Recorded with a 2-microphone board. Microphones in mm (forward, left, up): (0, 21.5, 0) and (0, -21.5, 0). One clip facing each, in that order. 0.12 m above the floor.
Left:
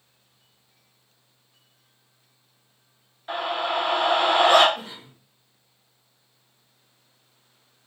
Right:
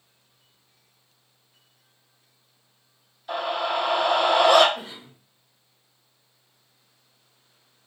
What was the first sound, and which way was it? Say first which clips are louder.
A scream: even; 40° left (ahead or behind).